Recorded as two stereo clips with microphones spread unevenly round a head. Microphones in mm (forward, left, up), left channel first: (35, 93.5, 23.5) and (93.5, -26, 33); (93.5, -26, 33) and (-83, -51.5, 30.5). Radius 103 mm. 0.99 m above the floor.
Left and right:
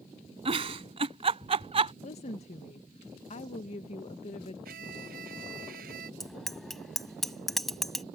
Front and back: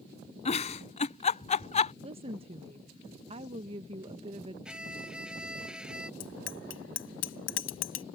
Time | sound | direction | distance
0.5 | a giggle | 35° right | ?
2.0 | a woman speaking | 135° left | ?
4.7 | a violin | 85° right | ?
6.2 | a bicycle bell | 25° left | ?